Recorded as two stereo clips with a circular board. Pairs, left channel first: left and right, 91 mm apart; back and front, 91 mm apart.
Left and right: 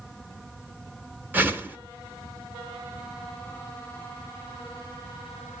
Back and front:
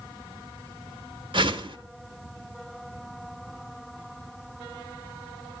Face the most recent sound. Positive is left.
turn(degrees=-20)